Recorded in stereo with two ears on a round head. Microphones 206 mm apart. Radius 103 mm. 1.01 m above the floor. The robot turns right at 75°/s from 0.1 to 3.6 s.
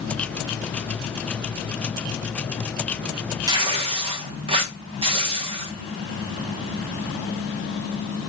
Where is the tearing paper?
15° right (ahead or behind), 0.7 m; by 5.7 s 25° right (ahead or behind), 0.7 m.